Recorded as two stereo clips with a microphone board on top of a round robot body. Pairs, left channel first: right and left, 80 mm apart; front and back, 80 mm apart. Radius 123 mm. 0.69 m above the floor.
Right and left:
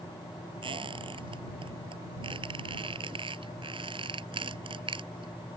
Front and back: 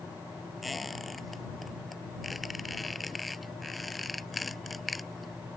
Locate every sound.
0.6 s a squeak: 90° left